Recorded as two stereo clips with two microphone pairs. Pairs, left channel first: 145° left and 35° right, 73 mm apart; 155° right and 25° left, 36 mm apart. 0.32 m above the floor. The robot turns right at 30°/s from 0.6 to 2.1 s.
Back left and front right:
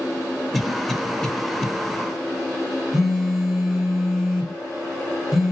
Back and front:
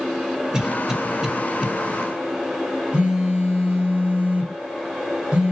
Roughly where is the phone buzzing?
Ahead left.